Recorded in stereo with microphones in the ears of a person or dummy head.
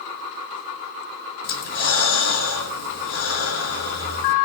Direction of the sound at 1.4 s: 60° left (ahead or behind).